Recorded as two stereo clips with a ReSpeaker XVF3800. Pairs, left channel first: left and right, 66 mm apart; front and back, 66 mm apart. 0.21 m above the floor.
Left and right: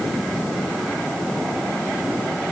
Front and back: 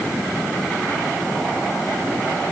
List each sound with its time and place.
Only background noise.